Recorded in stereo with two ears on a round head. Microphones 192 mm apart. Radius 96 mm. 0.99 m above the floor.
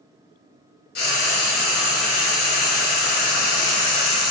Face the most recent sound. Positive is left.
turn(degrees=50)  # may be behind; listen again after turning